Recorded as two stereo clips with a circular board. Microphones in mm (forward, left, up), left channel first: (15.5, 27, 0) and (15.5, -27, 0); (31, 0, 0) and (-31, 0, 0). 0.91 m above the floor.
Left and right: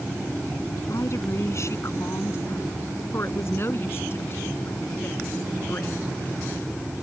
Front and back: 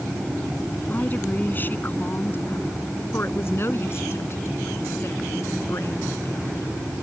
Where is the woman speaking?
60° left; by 6.8 s 35° left.